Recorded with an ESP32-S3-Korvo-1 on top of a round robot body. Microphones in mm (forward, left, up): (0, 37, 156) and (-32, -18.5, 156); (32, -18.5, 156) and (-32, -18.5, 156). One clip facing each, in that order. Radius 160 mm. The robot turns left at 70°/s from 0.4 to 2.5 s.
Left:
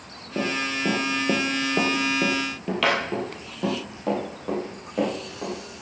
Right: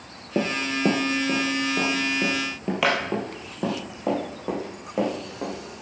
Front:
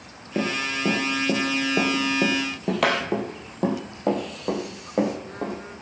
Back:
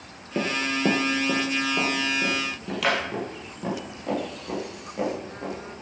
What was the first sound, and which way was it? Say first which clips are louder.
Running footsteps: right 1 dB, even; 80° right.